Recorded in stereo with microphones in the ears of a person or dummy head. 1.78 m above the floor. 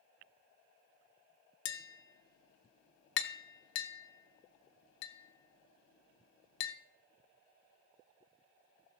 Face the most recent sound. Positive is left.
turn(degrees=70)  # may be behind; listen again after turning